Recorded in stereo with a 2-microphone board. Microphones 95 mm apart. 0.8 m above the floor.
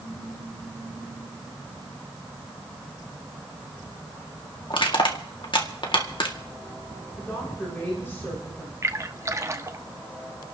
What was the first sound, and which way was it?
Crushing, 60° left (ahead or behind).